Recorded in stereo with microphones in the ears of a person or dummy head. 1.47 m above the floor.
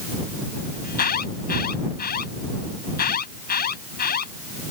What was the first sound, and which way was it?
An alarm, 45° left (ahead or behind).